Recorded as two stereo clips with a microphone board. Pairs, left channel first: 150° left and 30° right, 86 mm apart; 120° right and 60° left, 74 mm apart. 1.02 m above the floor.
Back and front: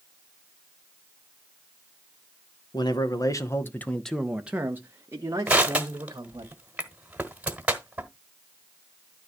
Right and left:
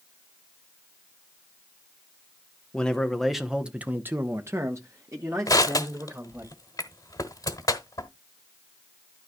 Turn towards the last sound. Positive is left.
turn(degrees=-100)